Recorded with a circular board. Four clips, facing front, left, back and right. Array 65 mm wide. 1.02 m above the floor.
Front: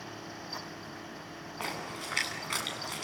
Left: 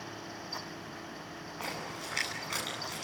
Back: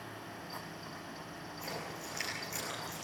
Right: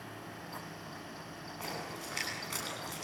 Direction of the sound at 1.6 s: 10° left.